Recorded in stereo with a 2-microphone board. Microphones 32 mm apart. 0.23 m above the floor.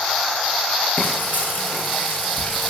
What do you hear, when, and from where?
1.0 s frying: 75° left (ahead or behind), 3 m